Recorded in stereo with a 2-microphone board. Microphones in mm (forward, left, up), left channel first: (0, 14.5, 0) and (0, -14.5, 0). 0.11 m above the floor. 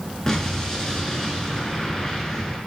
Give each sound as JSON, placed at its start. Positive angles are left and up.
{"t": 0.3, "sound": "an explosion", "side_deg": 20, "distance_m": 0.5}